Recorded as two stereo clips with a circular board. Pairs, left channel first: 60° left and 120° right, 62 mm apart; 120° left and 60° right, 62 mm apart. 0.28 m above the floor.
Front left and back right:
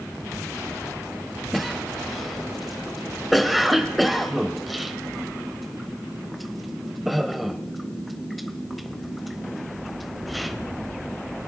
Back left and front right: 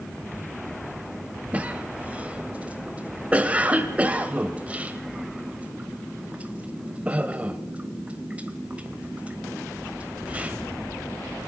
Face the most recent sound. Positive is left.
turn(degrees=-30)